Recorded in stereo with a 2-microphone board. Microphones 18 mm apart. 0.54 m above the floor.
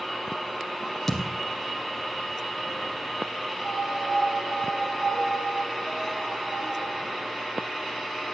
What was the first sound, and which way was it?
A thud, 5° left (ahead or behind).